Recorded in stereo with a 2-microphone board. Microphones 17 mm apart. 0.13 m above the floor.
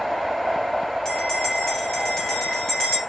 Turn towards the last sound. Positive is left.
turn(degrees=25)  # may be behind; listen again after turning